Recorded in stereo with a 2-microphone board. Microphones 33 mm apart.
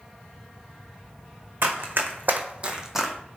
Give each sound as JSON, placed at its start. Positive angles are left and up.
{"t": 1.6, "sound": "running footsteps", "side_deg": -80, "distance_m": 1.0}